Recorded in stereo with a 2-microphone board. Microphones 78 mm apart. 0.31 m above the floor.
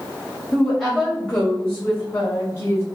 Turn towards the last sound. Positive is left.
turn(degrees=35)  # may be behind; listen again after turning